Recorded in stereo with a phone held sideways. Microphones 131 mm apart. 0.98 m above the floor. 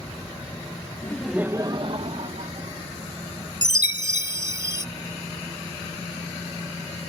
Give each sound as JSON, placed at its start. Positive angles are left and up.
{"t": 1.0, "sound": "laughter", "side_deg": 20}
{"t": 3.6, "sound": "a chime", "side_deg": 35}